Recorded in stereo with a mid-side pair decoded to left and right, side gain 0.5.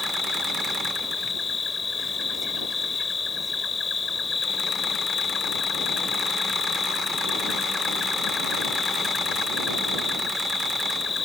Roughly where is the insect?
Ahead left.